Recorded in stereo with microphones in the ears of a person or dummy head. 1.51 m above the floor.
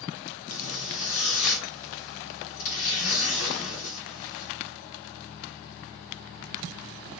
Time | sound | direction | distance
0.5 | a zipper | 75° left (ahead or behind) | 2.5 m